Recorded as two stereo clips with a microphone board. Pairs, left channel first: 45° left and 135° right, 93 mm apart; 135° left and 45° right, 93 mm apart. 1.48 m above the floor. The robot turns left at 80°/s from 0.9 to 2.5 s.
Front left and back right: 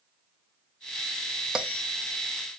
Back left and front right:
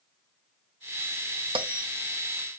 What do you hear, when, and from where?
1.6 s a bell: 55° right, 0.7 m; by 1.9 s 80° right, 0.7 m